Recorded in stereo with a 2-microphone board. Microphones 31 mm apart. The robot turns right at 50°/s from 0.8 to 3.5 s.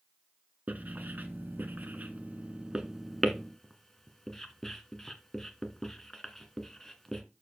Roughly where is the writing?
Right.